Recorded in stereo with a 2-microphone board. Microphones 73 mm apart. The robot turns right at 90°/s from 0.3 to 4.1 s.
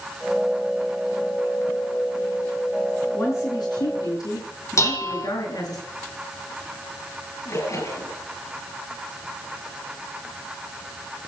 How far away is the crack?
I don't hear a crack.